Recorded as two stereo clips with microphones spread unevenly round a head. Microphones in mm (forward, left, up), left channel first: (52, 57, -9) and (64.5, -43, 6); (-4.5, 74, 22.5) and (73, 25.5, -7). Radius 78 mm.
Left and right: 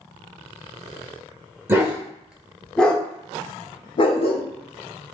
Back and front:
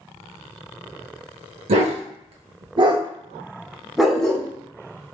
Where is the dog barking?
25° right, 1.1 m; by 4.5 s 90° left, 0.9 m.